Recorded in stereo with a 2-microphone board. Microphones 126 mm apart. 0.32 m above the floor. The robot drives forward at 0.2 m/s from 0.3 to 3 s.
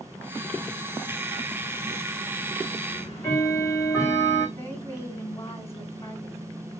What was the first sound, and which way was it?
Ticking, 20° left (ahead or behind).